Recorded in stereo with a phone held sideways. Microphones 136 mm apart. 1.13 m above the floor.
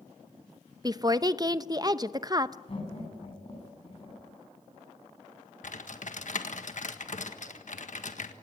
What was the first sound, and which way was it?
A woman speaking, 30° right (ahead or behind).